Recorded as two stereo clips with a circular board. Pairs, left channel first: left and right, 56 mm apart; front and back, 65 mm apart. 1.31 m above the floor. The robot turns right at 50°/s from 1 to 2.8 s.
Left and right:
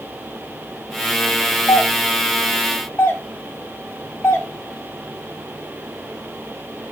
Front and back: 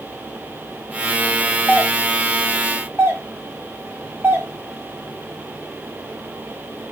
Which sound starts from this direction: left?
A doorbell, at 1.7 s.